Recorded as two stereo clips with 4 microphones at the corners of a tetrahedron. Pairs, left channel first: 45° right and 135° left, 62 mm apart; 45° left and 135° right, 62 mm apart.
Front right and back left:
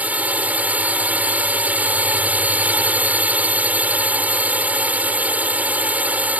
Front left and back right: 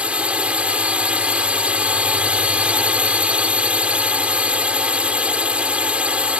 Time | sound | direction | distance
0.0 | a drone | 175° left | ?